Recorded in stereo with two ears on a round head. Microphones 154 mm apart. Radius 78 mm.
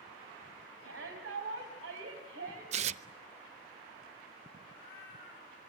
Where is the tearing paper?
40° right (ahead or behind), 0.7 m.